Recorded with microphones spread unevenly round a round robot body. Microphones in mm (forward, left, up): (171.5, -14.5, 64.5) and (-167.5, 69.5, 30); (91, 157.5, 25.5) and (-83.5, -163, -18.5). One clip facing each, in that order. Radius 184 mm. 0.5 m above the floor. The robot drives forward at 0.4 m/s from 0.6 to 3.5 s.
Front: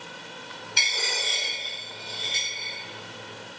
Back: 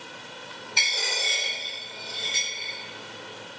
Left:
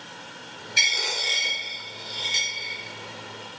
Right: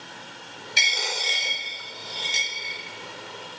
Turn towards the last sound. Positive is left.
turn(degrees=-130)